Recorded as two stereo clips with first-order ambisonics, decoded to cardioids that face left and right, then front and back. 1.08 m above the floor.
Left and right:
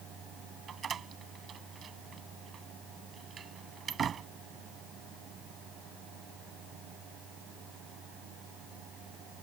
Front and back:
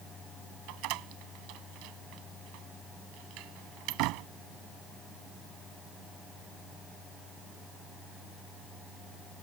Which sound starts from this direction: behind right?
A door slam, at 0.7 s.